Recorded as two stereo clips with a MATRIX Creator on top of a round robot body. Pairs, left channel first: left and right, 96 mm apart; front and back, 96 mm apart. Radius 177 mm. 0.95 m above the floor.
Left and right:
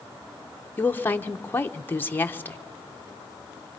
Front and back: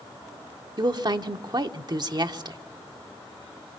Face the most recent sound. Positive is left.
turn(degrees=155)